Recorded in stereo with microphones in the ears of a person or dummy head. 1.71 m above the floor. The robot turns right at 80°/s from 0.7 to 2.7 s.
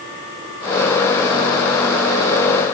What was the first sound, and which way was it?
Only background noise.